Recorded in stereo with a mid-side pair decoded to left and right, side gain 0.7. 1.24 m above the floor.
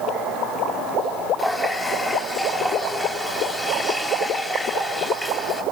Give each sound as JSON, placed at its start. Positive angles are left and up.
{"t": 1.4, "sound": "a running tap", "azimuth_deg": 15, "distance_m": 4.0}